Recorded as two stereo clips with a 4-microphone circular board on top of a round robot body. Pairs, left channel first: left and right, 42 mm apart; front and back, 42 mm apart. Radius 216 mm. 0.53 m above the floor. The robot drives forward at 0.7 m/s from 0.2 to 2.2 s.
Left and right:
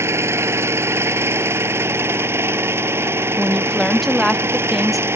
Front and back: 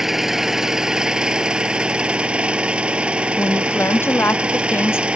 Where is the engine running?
100° right; by 5.2 s 115° right.